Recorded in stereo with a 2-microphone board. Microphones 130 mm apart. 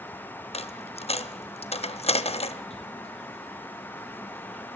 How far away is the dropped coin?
About 0.5 m.